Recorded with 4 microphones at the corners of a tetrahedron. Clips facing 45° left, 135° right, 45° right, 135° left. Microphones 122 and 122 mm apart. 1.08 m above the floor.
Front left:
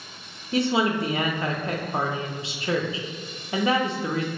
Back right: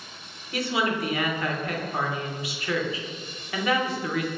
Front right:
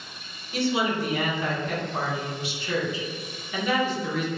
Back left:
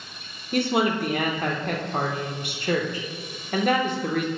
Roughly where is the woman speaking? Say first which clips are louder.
Front left 4 dB, back left 3 dB; left.